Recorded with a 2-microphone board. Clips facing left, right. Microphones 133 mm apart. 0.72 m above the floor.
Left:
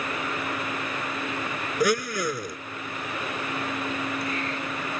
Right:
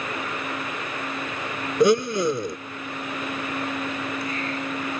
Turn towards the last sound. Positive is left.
turn(degrees=-25)  # may be behind; listen again after turning